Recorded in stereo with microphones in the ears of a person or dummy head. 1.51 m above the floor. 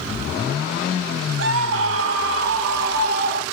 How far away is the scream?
About 1.4 m.